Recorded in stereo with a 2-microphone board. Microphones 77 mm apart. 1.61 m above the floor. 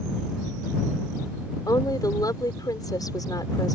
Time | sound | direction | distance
1.7 | a woman speaking | 55° left (ahead or behind) | ?